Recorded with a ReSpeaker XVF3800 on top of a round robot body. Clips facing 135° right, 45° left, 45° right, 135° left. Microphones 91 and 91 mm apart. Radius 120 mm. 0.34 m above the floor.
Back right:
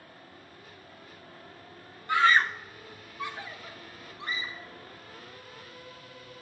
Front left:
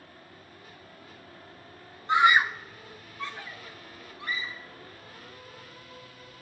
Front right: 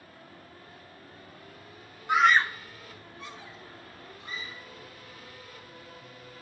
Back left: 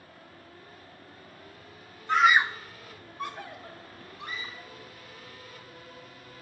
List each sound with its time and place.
2.1 s a scream: 20° left, 1.0 m; by 4.7 s 160° left, 4 m